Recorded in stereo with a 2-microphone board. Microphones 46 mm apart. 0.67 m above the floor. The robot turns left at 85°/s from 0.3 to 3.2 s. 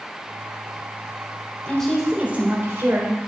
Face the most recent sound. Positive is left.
turn(degrees=-110)